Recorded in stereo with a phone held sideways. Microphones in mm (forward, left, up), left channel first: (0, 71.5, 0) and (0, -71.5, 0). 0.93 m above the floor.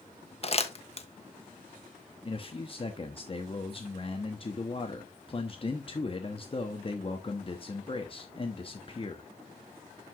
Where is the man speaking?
35° left (ahead or behind), 1.1 m.